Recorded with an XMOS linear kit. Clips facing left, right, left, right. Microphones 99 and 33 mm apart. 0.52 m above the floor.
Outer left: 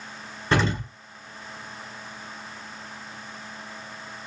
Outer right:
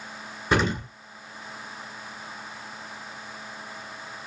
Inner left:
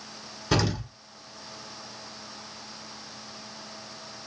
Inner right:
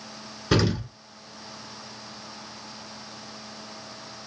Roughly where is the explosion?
Centre.